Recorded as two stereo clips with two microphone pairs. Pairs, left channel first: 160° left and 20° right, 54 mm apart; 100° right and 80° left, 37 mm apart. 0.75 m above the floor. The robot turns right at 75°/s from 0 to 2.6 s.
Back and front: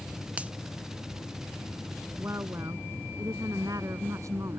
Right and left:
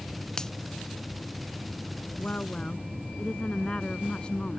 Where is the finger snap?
45° right; by 0.5 s 30° right.